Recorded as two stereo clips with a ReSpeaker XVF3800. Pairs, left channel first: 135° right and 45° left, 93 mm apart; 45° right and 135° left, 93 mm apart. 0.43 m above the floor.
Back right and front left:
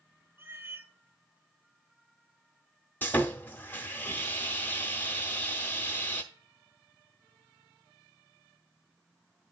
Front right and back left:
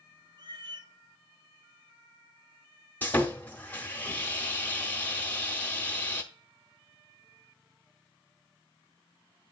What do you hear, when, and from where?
0.4 s a cat meowing: 110° left, 0.7 m
3.0 s sawing: 90° right, 0.8 m